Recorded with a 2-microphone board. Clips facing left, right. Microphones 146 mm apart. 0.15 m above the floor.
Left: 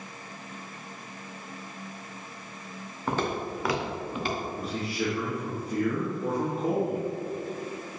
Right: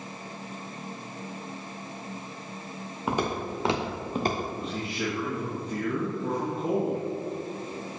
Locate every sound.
3.1 s footsteps: 10° right (ahead or behind), 1.8 m; by 4.5 s 50° right (ahead or behind), 1.5 m
4.6 s a man speaking: 5° left (ahead or behind), 2.5 m